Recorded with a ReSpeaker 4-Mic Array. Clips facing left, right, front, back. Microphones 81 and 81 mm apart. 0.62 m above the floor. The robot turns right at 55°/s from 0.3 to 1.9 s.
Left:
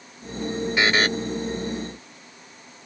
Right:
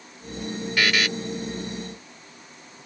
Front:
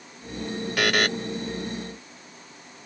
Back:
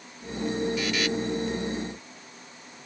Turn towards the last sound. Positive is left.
turn(degrees=85)